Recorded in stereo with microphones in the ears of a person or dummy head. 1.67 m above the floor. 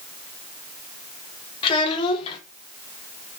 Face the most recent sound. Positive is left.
turn(degrees=25)  # may be behind; listen again after turning